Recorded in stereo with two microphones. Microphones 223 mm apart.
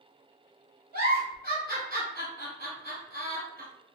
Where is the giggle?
45° left (ahead or behind), 1.6 m.